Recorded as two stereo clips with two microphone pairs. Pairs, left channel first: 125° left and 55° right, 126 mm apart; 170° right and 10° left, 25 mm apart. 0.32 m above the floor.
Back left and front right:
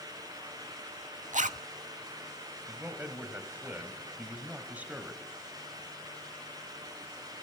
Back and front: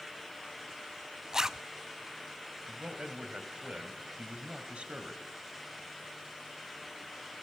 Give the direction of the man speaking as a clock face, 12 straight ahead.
11 o'clock.